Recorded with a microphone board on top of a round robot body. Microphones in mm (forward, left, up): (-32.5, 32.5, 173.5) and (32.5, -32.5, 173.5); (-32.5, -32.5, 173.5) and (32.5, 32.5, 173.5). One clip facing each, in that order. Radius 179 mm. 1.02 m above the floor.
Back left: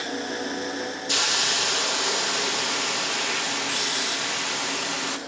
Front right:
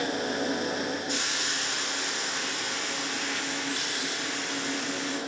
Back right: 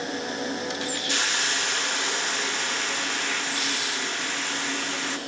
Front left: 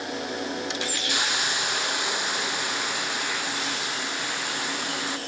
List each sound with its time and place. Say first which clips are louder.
1.1 s a hiss: back left 4 dB, front left 1 dB; 125° left, 0.7 m